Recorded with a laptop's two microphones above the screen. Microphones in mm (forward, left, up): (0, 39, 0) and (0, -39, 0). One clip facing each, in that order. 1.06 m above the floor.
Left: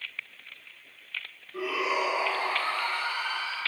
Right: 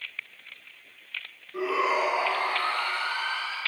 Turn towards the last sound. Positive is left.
turn(degrees=-80)